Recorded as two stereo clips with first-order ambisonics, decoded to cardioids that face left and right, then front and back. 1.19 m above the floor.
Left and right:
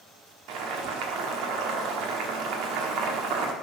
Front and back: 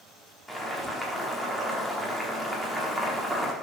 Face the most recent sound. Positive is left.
turn(degrees=-90)